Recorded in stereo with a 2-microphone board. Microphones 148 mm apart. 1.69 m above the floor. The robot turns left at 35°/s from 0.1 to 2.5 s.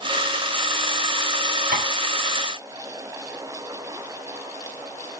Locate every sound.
1.7 s tapping: 75° right (ahead or behind), 6 m